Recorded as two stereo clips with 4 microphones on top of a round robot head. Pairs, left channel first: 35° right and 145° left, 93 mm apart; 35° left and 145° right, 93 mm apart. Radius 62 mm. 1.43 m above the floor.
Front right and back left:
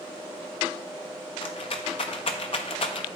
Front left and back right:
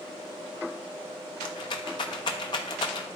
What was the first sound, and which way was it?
A rattle, 5° right.